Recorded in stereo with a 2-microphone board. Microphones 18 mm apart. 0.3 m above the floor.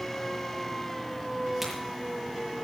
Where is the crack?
10° right (ahead or behind), 7 m.